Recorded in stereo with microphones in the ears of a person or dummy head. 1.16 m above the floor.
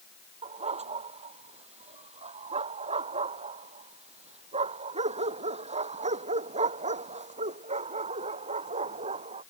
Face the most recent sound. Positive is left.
turn(degrees=-30)  # may be behind; listen again after turning